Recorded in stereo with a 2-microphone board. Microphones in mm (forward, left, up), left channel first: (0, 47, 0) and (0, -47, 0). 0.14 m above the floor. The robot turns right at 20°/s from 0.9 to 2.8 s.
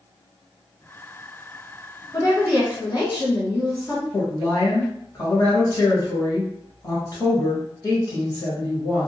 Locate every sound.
2.1 s a woman speaking: 45° left (ahead or behind), 1.6 m; by 4.0 s 40° left (ahead or behind), 1.6 m
4.1 s a woman speaking: 40° left (ahead or behind), 1.4 m